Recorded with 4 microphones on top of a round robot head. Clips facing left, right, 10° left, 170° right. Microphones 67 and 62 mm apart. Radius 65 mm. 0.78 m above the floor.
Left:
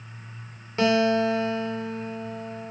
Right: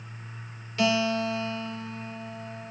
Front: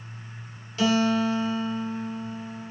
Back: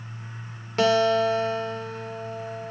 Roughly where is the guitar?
Behind left.